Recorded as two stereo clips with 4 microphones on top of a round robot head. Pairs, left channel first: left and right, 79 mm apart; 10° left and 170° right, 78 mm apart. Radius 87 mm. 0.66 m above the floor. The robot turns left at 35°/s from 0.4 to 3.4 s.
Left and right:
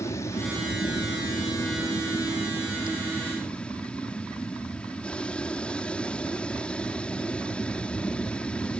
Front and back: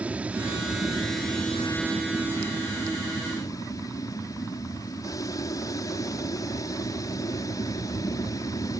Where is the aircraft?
125° left; by 8.8 s 20° left.